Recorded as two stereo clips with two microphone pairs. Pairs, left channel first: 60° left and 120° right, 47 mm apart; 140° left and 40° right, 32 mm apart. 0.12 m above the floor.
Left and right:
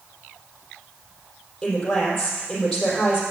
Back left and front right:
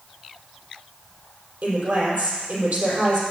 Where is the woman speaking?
10° right, 4 m.